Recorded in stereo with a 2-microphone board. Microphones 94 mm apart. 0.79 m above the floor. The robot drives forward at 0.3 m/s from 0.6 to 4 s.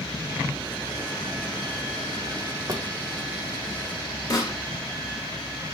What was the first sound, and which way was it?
A drawer, 35° right (ahead or behind).